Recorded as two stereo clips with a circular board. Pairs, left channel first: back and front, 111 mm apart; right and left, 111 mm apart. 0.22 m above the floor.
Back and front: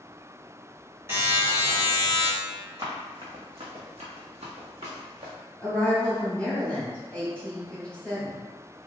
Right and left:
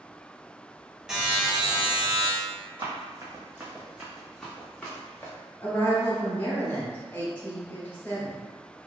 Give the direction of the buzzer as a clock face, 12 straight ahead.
11 o'clock.